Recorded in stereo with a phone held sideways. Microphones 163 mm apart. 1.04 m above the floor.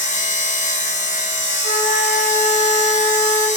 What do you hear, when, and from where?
0.0 s a machine running: 50° left (ahead or behind), 1.1 m
1.6 s a flute: 75° left (ahead or behind), 5.5 m